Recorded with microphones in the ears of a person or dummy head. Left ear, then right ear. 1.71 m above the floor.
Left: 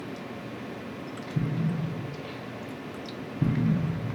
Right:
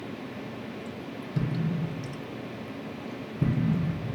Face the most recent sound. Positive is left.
turn(degrees=-5)  # may be behind; listen again after turning